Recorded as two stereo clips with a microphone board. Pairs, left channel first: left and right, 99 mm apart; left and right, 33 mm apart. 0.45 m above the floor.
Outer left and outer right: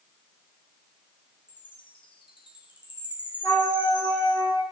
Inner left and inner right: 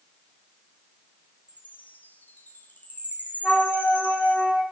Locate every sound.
1.5 s a chime: 55° left (ahead or behind), 3.5 m
3.4 s a flute: 30° right (ahead or behind), 7.5 m